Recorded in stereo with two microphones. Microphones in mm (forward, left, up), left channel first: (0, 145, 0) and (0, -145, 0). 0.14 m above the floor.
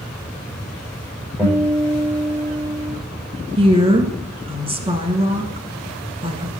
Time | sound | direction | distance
1.4 | a guitar | centre (ahead or behind) | 6 m
3.6 | a woman speaking | 20° right (ahead or behind) | 1.4 m